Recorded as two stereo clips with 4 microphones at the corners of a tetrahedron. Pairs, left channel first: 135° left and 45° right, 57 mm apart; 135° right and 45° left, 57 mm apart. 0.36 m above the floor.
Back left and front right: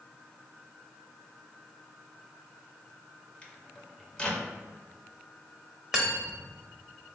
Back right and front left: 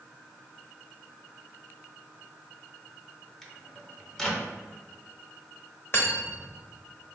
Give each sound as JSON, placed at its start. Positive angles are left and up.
{"t": 3.4, "sound": "a microwave", "azimuth_deg": 160, "distance_m": 0.6}
{"t": 5.9, "sound": "cutlery clinking", "azimuth_deg": -120, "distance_m": 0.8}